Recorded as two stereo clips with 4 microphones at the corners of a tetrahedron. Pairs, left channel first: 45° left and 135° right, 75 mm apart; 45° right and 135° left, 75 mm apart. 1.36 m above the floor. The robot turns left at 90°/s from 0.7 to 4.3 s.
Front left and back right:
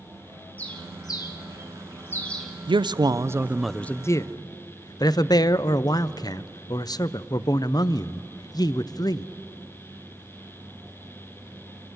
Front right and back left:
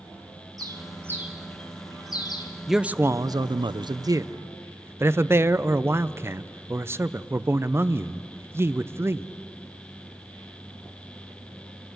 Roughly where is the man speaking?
Behind right.